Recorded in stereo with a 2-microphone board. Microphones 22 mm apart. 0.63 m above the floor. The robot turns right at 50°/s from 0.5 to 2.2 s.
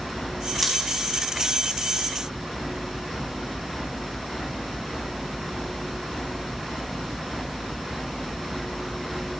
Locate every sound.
0.6 s scissors: 15° left (ahead or behind), 4.5 m; by 0.7 s 20° left (ahead or behind), 4.5 m